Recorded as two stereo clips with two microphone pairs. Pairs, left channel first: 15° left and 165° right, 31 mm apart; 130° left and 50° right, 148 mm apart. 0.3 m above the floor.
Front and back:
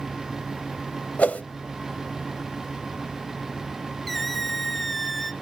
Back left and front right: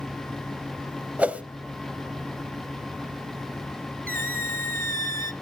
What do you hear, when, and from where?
1.2 s a whoosh: 25° left, 0.8 m
4.1 s a squeak: 70° right, 0.7 m